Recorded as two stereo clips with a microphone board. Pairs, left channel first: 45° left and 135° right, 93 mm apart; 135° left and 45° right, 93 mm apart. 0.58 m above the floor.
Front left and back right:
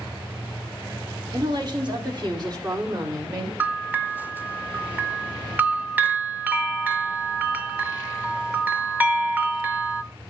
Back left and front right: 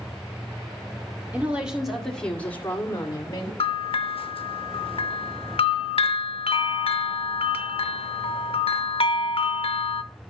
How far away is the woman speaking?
About 1.7 m.